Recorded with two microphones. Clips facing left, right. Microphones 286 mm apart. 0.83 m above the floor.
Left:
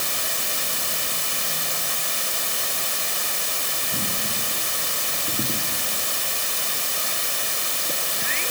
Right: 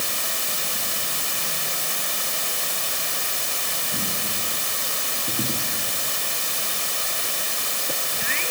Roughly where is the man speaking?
No man speaking in this recording.